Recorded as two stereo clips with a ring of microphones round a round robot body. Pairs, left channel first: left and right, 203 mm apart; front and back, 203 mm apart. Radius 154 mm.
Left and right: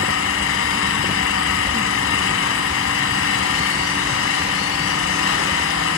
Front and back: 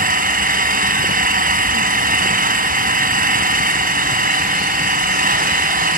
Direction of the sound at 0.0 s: 130° left.